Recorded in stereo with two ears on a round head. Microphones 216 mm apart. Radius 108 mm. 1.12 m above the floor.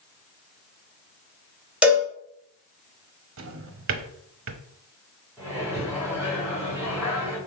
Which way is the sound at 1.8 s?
5° right (ahead or behind).